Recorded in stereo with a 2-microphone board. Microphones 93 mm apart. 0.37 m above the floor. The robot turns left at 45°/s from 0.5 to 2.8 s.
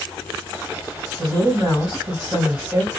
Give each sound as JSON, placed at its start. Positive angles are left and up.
{"t": 1.2, "sound": "a woman speaking", "azimuth_deg": -100, "distance_m": 1.8}